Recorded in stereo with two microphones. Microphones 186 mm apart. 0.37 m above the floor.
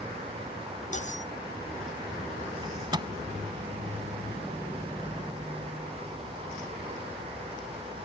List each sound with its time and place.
0.9 s cutlery clinking: 40° left (ahead or behind)
2.6 s a microwave: 25° right (ahead or behind)